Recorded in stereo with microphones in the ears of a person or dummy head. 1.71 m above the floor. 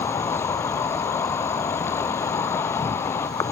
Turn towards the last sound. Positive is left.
turn(degrees=15)  # may be behind; listen again after turning